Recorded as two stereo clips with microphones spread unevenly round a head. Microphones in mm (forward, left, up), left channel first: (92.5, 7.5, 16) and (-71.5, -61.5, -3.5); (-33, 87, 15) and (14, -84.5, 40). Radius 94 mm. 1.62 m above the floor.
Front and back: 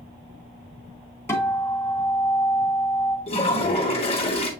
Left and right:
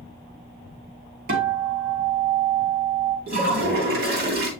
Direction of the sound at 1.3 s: 50° right.